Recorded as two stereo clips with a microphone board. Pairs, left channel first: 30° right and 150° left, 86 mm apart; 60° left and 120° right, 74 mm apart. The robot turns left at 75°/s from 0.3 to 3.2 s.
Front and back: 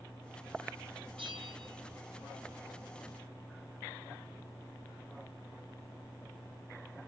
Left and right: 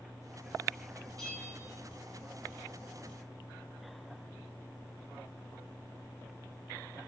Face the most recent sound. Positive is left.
turn(degrees=-5)